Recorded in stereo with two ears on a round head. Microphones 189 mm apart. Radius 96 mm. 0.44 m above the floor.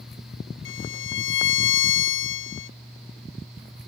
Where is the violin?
60° left (ahead or behind).